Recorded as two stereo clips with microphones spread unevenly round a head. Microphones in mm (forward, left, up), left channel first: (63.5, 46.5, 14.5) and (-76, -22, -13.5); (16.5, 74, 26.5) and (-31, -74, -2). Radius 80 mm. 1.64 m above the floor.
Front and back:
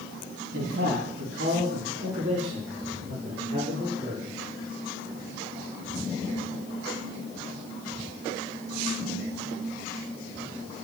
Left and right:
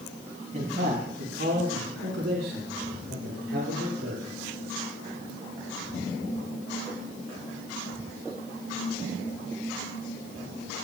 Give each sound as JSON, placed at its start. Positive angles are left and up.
{"t": 0.5, "sound": "a man speaking", "azimuth_deg": -150, "distance_m": 3.0}